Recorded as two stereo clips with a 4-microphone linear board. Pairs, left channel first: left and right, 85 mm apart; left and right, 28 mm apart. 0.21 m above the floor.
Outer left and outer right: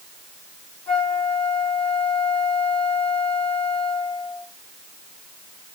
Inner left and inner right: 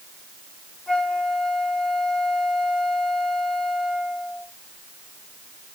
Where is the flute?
20° left (ahead or behind), 2 m.